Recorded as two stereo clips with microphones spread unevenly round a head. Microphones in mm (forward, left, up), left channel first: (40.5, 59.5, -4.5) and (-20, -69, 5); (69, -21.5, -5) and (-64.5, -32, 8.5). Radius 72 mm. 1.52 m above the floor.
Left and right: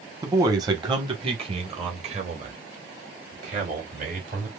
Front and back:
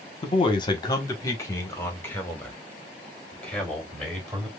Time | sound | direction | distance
0.2 | a man speaking | 45° right | 1.1 m